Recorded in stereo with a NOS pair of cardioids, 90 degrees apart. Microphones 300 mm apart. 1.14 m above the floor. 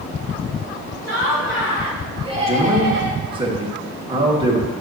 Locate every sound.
1.0 s laughter: 10° left, 2 m; by 3.2 s 50° right, 1.4 m
2.5 s a man speaking: 15° right, 1.9 m